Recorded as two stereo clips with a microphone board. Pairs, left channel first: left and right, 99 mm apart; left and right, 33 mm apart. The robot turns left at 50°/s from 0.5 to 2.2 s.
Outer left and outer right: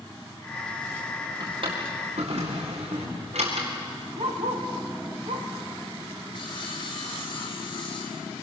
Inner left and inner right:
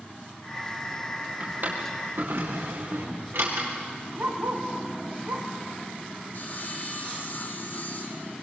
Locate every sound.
1.4 s a drawer: 40° right (ahead or behind), 7.5 m; by 3.7 s 80° right, 7.5 m
4.2 s a dog barking: 75° right (ahead or behind), 6 m
6.3 s sawing: 50° left (ahead or behind), 5.5 m